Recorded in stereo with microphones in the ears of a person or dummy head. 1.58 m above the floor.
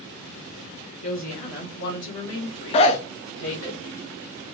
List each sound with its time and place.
1.0 s a woman speaking: 40° left (ahead or behind), 1.8 m; by 3.7 s 90° left, 1.9 m
2.7 s a zipper: 30° left (ahead or behind), 0.5 m